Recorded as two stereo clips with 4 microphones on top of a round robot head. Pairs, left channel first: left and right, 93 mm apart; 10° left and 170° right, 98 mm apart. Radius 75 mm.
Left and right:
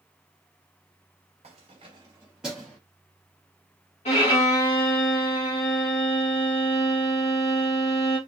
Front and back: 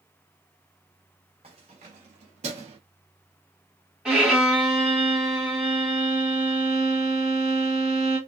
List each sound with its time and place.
1.4 s keys jangling: 125° right, 1.0 m; by 2.8 s 170° left, 1.0 m
4.0 s a violin: 105° left, 1.4 m